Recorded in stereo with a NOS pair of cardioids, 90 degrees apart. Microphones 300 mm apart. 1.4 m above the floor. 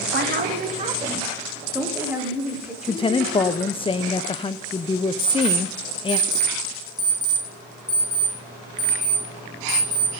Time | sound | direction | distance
0.1 | a woman speaking | 35° right | 1.7 m
2.9 | a woman speaking | 20° left | 0.5 m
5.2 | an alarm clock | 5° left | 9.5 m